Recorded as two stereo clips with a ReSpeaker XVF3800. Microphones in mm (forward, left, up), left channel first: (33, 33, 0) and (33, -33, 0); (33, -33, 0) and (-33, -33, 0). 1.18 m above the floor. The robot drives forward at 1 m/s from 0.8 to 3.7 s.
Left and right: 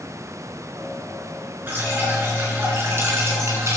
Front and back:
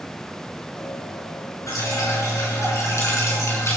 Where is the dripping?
35° right, 7 m; by 3.8 s 45° right, 5.5 m.